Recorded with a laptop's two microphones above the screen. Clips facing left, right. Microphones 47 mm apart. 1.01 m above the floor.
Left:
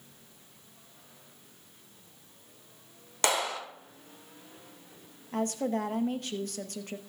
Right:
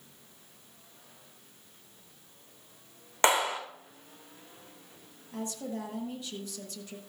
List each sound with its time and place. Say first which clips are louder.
3.2 s a clap: right 4 dB; 30° right (ahead or behind), 2.5 m
5.3 s a woman speaking: left 7 dB; 55° left (ahead or behind), 1.0 m